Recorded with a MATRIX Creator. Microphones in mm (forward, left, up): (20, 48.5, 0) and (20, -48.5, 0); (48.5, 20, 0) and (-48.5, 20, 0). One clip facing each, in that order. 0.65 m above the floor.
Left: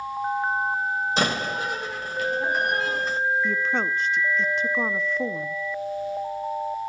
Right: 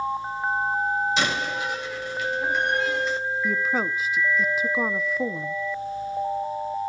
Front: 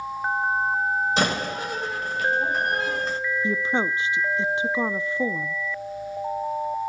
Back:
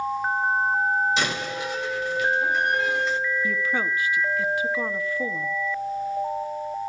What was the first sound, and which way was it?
A door slam, 45° left.